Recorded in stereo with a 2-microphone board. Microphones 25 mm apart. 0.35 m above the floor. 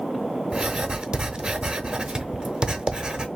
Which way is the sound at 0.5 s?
35° right (ahead or behind).